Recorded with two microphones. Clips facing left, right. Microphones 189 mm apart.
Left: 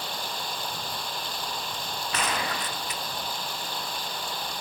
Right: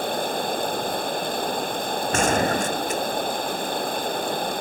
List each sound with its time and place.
0.0 s running water: 55° right (ahead or behind)
2.1 s a gunshot: 45° right (ahead or behind)